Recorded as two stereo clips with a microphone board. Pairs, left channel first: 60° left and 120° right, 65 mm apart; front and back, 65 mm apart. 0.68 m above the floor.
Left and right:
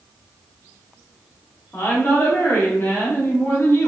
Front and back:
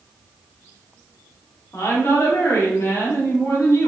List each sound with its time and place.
1.7 s a woman speaking: 20° left, 0.8 m